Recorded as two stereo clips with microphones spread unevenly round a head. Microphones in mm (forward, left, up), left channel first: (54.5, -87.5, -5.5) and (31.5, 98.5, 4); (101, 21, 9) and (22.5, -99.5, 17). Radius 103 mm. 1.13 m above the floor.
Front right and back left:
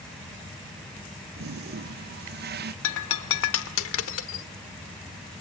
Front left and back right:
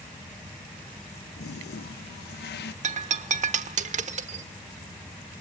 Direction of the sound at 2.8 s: 95° right.